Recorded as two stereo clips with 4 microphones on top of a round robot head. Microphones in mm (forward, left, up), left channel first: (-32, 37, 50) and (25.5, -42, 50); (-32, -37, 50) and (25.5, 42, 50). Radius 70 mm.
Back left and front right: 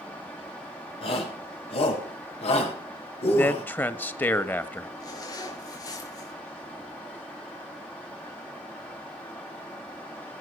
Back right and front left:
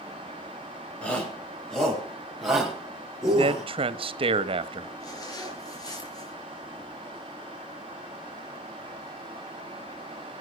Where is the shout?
155° left, 6 m; by 3.6 s 140° left, 7 m.